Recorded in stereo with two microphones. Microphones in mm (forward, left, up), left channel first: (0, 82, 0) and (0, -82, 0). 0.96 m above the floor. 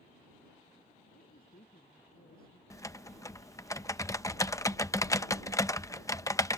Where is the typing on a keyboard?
20° left (ahead or behind).